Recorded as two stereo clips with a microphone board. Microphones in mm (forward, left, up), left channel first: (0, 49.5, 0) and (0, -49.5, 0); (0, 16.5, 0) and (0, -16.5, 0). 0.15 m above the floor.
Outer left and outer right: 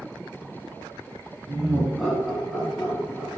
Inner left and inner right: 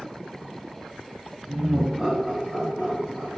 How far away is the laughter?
About 1.3 m.